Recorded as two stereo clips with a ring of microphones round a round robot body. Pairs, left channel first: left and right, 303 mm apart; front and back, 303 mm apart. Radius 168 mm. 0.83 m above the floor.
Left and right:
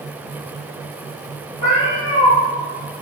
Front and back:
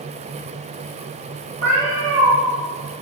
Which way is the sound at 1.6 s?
115° left.